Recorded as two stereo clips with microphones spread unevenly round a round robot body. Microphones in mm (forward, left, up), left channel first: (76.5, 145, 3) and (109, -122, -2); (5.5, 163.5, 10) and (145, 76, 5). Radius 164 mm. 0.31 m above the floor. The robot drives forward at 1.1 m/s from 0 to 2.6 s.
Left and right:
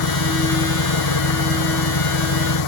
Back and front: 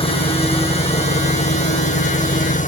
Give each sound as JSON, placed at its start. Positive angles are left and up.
{"t": 0.0, "sound": "an engine running", "azimuth_deg": 90}